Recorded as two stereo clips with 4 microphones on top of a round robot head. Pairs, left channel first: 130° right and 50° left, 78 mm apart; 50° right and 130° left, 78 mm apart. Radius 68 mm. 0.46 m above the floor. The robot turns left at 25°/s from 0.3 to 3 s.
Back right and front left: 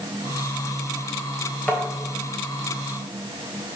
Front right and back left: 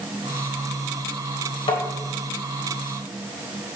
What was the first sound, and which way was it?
Tapping, 55° right.